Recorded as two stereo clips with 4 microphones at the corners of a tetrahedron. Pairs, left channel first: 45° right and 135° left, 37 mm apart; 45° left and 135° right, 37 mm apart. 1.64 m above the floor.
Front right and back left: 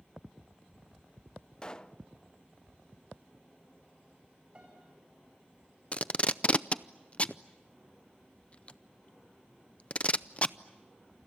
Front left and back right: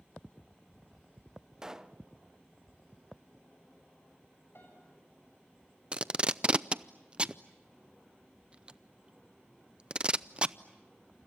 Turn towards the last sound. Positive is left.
turn(degrees=-80)